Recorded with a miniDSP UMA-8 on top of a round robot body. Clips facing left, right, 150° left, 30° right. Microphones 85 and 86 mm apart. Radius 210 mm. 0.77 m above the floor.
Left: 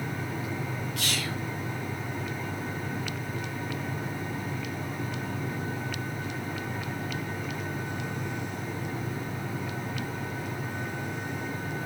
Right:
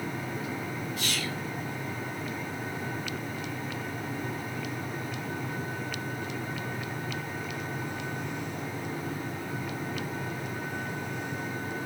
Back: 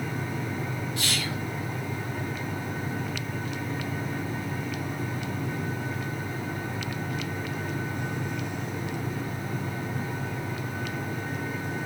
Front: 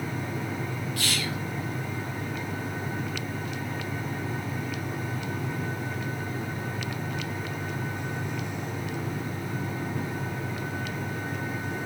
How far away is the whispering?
About 2.5 m.